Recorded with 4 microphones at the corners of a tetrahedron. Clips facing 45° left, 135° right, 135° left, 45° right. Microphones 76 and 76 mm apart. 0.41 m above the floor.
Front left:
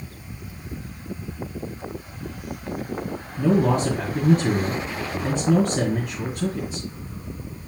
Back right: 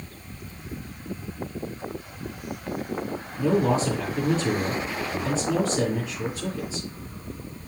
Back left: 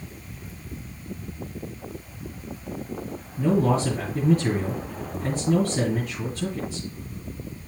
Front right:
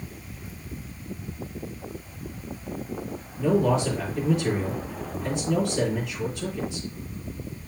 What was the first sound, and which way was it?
A man speaking, 85° left.